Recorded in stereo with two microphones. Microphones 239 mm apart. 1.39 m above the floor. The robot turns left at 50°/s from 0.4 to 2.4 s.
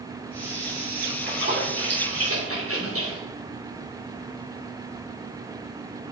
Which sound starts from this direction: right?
A splash, at 1.1 s.